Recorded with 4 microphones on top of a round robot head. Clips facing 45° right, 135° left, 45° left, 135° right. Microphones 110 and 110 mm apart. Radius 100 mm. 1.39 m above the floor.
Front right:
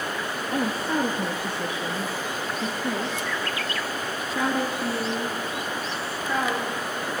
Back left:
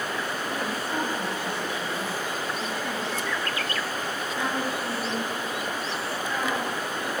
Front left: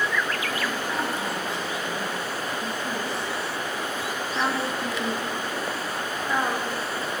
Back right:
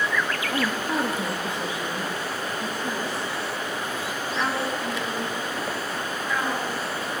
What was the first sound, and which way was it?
A woman speaking, 75° right.